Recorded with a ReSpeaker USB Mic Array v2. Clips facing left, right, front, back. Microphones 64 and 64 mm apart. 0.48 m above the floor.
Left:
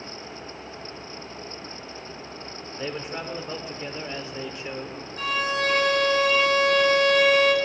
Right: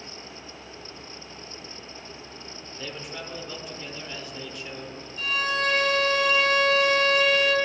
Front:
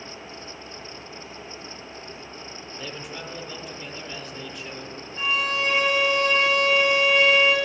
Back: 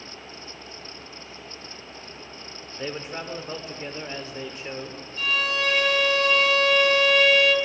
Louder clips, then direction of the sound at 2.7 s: Left 5 dB, back 5 dB; 135° left.